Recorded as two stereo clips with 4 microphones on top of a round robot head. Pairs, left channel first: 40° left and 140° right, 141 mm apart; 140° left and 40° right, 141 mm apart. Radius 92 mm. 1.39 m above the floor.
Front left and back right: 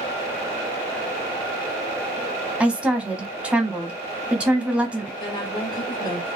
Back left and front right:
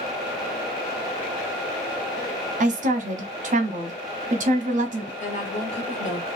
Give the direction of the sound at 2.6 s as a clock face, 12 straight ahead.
2 o'clock.